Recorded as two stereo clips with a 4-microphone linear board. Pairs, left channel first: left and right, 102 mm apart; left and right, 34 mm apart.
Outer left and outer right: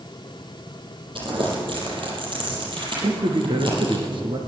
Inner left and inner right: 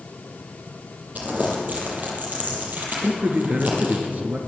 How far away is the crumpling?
About 6.5 m.